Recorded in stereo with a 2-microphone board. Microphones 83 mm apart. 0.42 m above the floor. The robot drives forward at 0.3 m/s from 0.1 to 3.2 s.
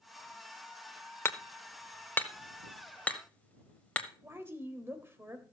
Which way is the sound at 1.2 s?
30° left (ahead or behind).